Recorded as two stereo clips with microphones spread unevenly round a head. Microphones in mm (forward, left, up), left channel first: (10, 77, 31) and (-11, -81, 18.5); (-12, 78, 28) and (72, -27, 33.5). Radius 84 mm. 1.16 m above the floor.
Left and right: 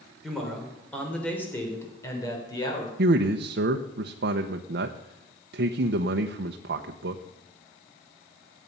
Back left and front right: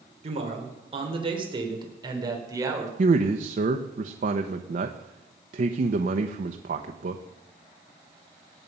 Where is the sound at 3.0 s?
85° right, 0.8 m.